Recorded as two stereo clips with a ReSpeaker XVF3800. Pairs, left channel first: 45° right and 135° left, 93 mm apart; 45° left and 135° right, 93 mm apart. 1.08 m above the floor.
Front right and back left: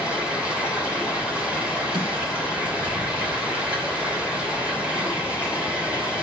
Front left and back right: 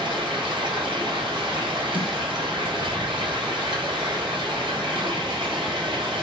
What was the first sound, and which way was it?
Running water, 150° right.